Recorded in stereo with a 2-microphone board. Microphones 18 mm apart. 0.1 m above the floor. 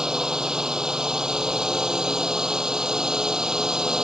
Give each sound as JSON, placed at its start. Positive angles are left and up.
{"t": 0.0, "sound": "a drone", "side_deg": -45}